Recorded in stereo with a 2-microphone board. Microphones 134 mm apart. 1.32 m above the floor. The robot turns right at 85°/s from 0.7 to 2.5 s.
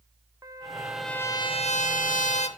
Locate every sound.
0.4 s a trumpet: 25° right, 1.1 m; by 2.5 s 125° left, 1.1 m